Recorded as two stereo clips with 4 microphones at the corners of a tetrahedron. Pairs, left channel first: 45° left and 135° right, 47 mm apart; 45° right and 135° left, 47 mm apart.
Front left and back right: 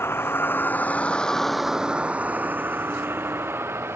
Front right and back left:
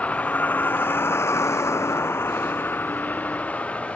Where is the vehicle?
15° left; by 4.0 s 110° right.